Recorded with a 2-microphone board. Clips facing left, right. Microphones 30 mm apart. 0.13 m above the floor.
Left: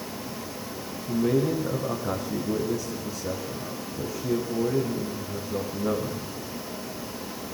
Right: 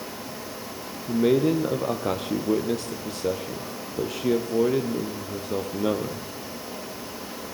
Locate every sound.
1.1 s a man speaking: 60° right (ahead or behind), 4 m